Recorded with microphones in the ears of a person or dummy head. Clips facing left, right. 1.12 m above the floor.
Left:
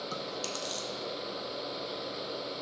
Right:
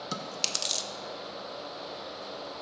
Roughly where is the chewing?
Right.